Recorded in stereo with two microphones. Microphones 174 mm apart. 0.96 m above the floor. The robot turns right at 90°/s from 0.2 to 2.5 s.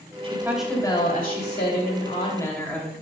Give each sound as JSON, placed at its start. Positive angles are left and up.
{"t": 0.2, "sound": "a woman speaking", "azimuth_deg": -35, "distance_m": 2.5}